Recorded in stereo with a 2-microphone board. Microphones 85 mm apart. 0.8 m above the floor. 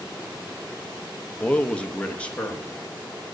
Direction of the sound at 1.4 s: 15° left (ahead or behind).